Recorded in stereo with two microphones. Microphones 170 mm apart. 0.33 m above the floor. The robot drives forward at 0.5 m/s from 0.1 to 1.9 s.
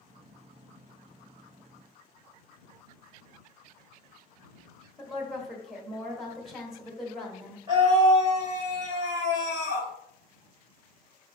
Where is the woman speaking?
Centre (ahead or behind), 0.9 m.